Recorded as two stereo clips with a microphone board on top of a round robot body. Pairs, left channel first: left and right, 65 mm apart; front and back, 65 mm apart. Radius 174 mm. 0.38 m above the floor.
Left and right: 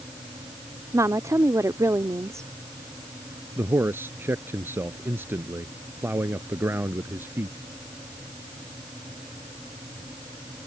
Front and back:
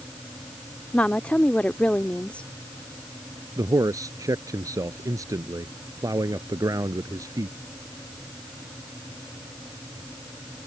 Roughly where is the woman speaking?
Right.